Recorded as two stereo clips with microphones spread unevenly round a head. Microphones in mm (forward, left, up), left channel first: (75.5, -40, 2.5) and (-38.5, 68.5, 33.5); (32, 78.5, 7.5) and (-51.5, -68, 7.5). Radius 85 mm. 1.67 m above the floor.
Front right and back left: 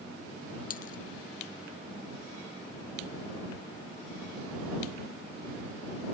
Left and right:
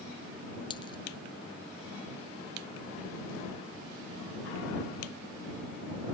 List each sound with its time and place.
0.7 s a dropped coin: 5° right